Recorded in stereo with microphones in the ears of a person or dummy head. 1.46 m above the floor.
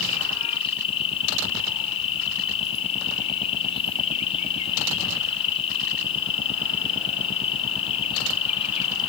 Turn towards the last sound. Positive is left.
turn(degrees=35)  # may be behind; listen again after turning